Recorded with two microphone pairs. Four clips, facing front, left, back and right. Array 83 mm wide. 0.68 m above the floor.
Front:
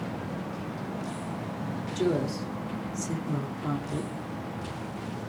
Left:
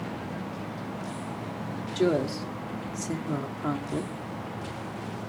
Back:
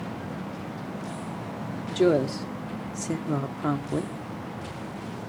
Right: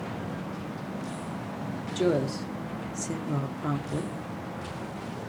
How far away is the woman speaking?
About 1.7 m.